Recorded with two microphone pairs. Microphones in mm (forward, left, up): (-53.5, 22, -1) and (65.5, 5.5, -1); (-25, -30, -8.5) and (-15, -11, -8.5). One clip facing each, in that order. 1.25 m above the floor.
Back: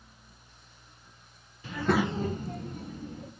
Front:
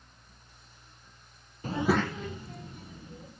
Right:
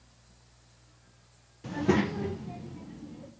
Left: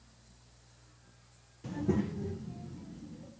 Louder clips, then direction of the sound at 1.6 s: Even, right 6 dB; 50° right.